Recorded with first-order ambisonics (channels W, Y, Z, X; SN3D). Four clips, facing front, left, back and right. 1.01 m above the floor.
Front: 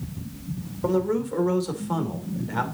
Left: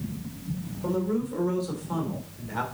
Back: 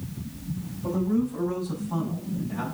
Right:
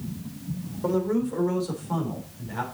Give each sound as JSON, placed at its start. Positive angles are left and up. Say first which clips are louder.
{"t": 0.8, "sound": "a man speaking", "louder": "right 3 dB, front 2 dB", "azimuth_deg": -20, "distance_m": 3.0}